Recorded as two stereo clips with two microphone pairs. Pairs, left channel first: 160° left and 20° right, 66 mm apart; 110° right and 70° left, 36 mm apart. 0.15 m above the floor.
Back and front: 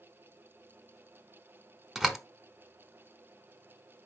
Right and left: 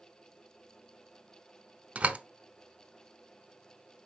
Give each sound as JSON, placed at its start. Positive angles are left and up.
{"t": 1.9, "sound": "a door slam", "azimuth_deg": 60, "distance_m": 1.0}